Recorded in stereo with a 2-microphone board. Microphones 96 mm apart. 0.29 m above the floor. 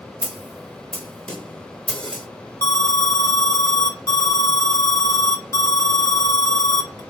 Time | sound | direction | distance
0.2 | a snare drum | 10° left (ahead or behind) | 0.9 m
2.6 | an alarm | 35° left (ahead or behind) | 0.7 m